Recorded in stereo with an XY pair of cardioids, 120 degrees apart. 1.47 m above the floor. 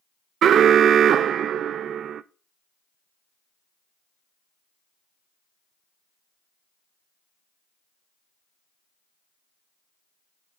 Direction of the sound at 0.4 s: 55° right.